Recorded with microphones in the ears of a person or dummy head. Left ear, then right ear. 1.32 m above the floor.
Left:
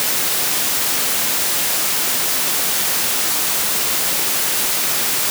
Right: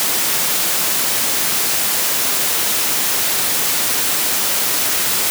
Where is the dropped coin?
I don't hear a dropped coin.